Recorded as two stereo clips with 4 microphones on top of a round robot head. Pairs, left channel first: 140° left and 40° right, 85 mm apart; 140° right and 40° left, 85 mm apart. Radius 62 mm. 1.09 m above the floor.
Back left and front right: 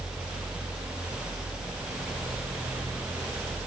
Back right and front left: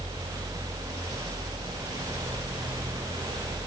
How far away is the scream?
I don't hear a scream.